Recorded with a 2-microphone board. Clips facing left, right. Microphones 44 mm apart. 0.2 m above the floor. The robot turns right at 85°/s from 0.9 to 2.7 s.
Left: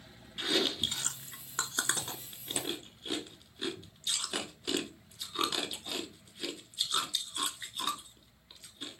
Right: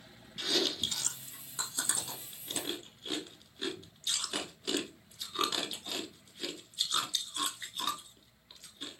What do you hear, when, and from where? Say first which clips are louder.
0.4 s chewing: left 1 dB; 25° left (ahead or behind), 0.9 m; by 9.0 s centre (ahead or behind), 0.9 m